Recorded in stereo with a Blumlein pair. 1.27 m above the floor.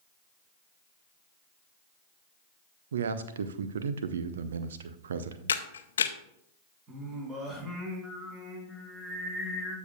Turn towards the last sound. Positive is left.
turn(degrees=-25)